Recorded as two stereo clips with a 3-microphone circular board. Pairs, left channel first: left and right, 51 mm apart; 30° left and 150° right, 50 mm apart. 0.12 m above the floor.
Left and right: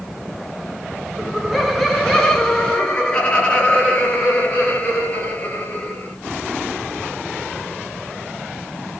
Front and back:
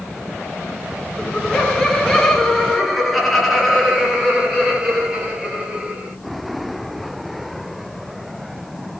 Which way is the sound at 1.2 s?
15° right.